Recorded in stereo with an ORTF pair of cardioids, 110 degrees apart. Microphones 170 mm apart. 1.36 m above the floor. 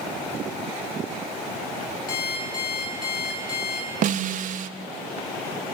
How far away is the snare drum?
About 1.1 m.